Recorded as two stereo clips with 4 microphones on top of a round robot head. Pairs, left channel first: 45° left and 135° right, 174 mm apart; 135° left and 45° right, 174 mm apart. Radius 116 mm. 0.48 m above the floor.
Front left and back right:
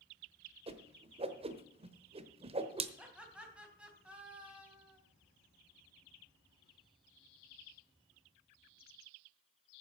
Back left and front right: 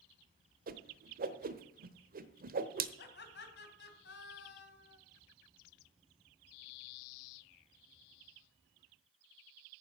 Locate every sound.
0.7 s a whoosh: 80° right, 1.1 m
3.0 s laughter: 145° left, 3 m